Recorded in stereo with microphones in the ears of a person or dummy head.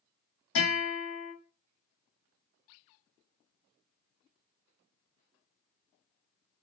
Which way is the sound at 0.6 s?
55° left (ahead or behind).